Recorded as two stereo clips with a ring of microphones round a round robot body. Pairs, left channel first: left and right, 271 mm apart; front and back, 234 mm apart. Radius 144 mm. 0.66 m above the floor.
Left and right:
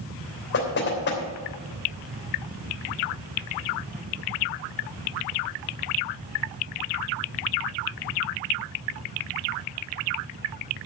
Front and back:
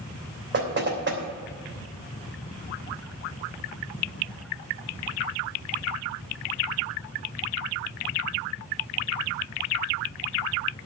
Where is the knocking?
140° left, 3 m.